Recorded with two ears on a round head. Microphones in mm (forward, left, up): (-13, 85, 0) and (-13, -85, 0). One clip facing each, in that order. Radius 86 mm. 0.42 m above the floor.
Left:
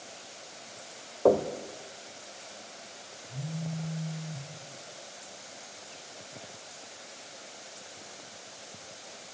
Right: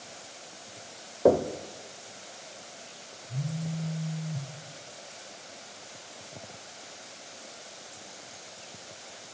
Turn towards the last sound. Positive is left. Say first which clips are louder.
# right 2 dB
turn(degrees=-25)  # may be behind; listen again after turning